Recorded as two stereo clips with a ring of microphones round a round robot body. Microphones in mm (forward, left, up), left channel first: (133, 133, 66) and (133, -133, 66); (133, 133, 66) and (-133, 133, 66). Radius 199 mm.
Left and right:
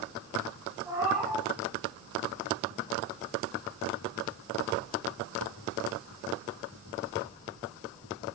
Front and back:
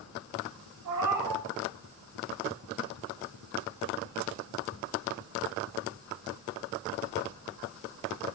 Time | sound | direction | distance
0.8 | a cat meowing | 170° right | 1.4 m